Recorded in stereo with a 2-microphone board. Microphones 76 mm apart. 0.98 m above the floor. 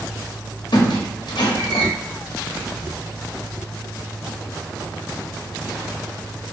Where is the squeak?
65° left (ahead or behind), 0.7 m.